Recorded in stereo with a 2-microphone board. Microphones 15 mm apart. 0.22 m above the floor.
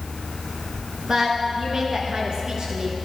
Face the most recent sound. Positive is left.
turn(degrees=-60)  # may be behind; listen again after turning